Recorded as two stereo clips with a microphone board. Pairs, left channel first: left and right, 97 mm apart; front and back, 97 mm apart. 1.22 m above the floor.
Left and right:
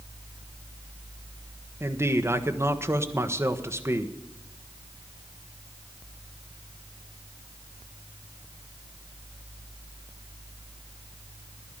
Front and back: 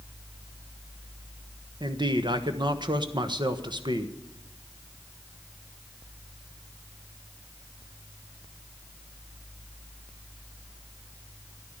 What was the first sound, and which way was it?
A man speaking, 150° right.